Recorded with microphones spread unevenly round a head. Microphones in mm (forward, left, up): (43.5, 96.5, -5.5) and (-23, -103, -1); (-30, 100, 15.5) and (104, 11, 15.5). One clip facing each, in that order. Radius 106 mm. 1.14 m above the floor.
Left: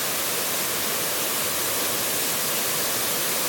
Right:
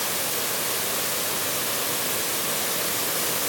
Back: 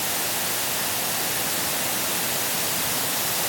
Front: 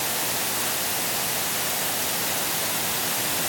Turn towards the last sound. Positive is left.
No sound to turn to.